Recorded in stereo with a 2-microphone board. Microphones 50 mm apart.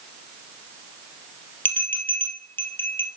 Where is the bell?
45° left (ahead or behind), 2.5 m.